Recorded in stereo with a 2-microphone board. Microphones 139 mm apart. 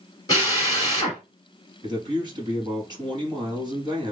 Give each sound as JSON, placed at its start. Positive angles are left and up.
{"t": 0.3, "sound": "a drill", "side_deg": 30, "distance_m": 1.6}
{"t": 1.8, "sound": "a man speaking", "side_deg": -30, "distance_m": 3.0}